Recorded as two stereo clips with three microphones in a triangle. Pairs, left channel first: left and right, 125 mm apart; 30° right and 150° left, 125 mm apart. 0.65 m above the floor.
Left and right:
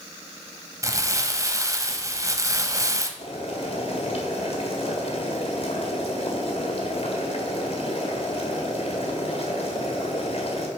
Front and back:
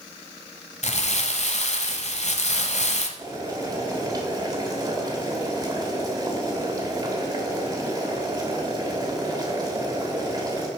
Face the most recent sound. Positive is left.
turn(degrees=100)